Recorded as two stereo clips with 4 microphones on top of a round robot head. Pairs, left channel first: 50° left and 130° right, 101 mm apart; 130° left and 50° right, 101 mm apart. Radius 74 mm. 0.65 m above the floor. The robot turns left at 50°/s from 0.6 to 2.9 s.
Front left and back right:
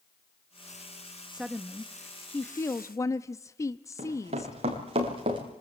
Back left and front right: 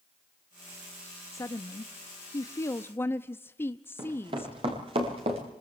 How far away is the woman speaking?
About 0.7 m.